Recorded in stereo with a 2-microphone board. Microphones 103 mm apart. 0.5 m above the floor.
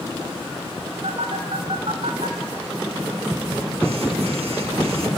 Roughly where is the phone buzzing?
Right.